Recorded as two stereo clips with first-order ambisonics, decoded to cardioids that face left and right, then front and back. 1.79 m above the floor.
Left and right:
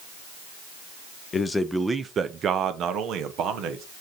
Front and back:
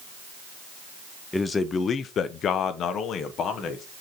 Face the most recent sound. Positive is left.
turn(degrees=-55)